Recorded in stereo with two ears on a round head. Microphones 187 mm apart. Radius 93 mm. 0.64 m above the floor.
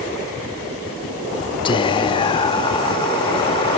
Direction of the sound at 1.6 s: 25° left (ahead or behind).